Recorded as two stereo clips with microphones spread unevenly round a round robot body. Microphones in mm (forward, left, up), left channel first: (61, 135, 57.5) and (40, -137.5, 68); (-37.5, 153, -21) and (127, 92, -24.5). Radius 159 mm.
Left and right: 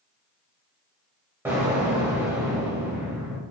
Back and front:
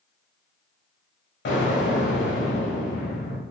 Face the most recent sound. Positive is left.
turn(degrees=-175)